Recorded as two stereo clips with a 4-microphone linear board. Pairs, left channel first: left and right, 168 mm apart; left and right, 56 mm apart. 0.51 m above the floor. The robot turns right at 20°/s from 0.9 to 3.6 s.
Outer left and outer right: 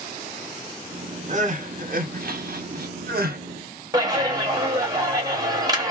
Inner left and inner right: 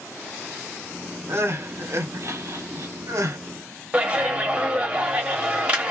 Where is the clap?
20° right (ahead or behind), 0.9 m.